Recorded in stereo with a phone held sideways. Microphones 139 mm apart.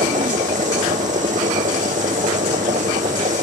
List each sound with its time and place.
0.0 s a machine running: 65° right (ahead or behind)